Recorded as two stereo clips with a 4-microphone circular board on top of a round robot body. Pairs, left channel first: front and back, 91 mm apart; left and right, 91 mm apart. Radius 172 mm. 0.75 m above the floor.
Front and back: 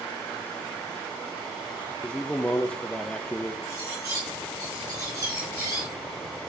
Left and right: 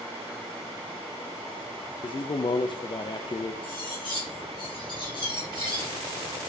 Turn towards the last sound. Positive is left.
turn(degrees=125)